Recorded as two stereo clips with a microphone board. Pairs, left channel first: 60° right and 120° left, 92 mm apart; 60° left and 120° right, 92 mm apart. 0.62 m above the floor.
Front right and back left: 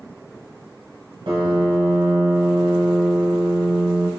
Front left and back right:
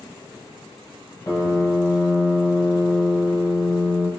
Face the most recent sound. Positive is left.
turn(degrees=110)